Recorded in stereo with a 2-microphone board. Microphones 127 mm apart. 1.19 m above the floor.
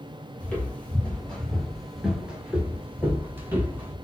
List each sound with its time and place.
0.4 s footsteps: 10° left (ahead or behind), 1.7 m; by 4.0 s 15° right (ahead or behind), 1.8 m